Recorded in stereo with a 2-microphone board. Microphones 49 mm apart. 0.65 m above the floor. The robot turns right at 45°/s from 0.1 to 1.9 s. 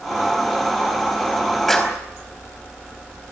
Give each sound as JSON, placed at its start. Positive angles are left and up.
{"t": 1.7, "sound": "a clap", "side_deg": 5, "distance_m": 4.0}